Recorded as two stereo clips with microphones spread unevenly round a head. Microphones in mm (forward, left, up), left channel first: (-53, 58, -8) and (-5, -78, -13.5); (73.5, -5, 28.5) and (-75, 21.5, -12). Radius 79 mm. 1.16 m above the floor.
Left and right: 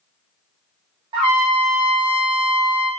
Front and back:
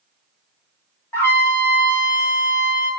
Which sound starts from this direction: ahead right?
A trumpet, at 1.1 s.